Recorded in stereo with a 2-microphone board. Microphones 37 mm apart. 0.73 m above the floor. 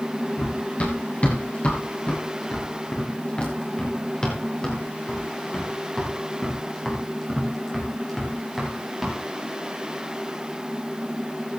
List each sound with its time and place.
0.4 s running footsteps: 45° left (ahead or behind), 5.5 m; by 9.2 s centre (ahead or behind), 6.5 m